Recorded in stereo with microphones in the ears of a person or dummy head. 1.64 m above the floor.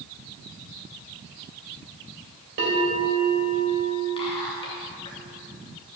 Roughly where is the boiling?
No boiling in this recording.